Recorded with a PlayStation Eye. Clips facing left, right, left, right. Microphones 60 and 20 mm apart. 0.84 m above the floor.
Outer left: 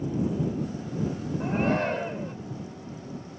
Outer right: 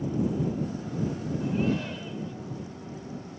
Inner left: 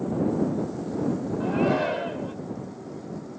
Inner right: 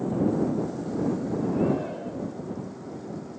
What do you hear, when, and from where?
1.4 s a shout: 50° left (ahead or behind)